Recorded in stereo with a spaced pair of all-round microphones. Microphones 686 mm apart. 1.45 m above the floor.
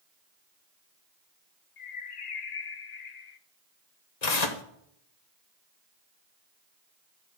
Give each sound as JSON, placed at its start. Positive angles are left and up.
{"t": 1.8, "sound": "a bird", "side_deg": 75, "distance_m": 0.8}
{"t": 4.2, "sound": "tearing paper", "side_deg": 70, "distance_m": 1.2}